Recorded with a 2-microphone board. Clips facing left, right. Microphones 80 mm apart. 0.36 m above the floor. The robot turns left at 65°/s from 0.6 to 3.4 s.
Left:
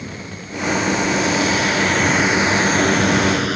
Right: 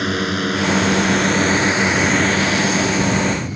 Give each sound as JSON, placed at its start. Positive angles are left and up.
{"t": 0.0, "sound": "a drone", "azimuth_deg": -80}